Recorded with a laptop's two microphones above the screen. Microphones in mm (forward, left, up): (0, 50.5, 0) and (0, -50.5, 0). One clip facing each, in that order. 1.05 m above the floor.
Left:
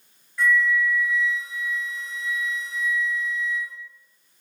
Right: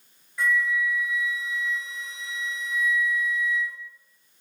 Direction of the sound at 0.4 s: 15° right (ahead or behind).